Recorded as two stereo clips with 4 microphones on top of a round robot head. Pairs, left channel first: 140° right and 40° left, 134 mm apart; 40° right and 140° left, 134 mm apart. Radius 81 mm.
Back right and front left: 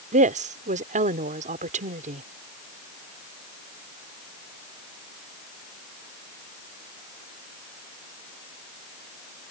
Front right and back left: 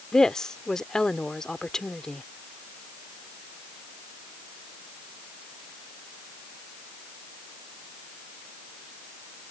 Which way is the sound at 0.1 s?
45° left.